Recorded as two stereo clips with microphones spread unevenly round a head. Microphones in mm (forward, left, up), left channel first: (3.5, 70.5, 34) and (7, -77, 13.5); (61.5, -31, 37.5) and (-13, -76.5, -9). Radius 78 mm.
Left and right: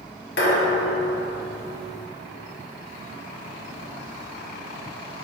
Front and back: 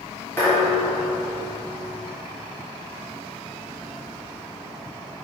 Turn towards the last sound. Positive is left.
turn(degrees=90)